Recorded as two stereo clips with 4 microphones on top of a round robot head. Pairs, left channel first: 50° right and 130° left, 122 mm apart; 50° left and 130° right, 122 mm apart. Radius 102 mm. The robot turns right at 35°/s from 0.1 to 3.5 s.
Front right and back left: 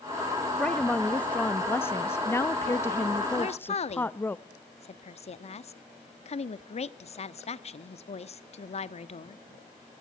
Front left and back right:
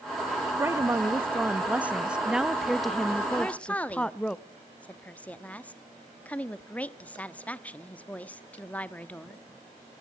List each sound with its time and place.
0.6 s a woman speaking: 115° right, 0.8 m; by 4.4 s 15° right, 0.8 m
3.4 s a woman speaking: 30° right, 1.1 m; by 9.4 s 25° right, 1.1 m